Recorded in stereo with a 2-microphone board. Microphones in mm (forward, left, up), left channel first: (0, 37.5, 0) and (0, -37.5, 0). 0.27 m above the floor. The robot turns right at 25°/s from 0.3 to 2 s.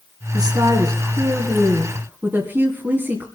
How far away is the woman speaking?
About 2.5 m.